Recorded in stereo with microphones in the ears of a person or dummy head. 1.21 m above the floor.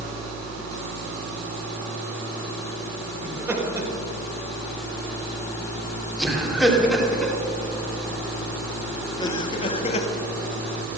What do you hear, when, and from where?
3.2 s laughter: 10° right (ahead or behind), 4.5 m; by 10.1 s 40° left (ahead or behind), 1.6 m